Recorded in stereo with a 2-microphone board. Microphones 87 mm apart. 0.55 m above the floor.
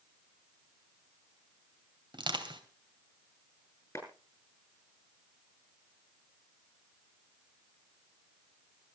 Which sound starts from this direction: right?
Crushing, at 2.1 s.